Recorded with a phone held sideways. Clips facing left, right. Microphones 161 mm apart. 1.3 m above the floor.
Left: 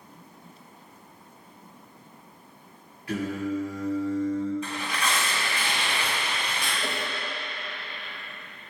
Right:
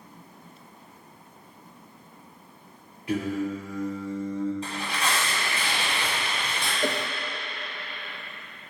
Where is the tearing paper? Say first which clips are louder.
Even; 35° right (ahead or behind), 3 m.